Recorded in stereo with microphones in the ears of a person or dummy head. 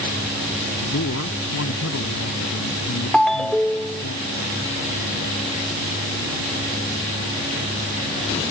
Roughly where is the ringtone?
Centre.